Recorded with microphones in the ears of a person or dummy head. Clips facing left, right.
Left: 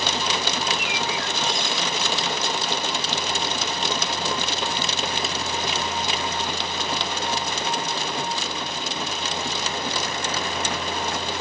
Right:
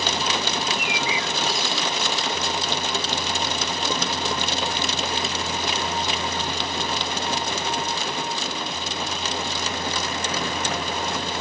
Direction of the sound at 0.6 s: Centre (ahead or behind).